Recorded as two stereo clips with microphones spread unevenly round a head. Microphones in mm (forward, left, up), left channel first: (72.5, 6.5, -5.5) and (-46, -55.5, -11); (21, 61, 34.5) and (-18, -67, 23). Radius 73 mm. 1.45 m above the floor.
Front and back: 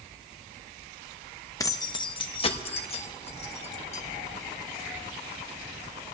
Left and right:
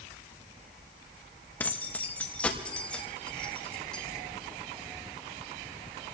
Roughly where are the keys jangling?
Ahead left.